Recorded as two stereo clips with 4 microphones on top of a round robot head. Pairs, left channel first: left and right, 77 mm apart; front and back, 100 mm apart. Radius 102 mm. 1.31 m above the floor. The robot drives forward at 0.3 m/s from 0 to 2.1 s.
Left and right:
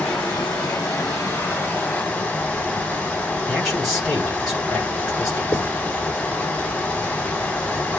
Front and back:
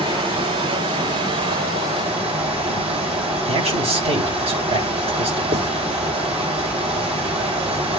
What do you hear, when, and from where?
0.0 s running water: 170° left, 4.5 m
3.5 s a man speaking: 175° right, 8.5 m
5.5 s writing: 170° left, 5.5 m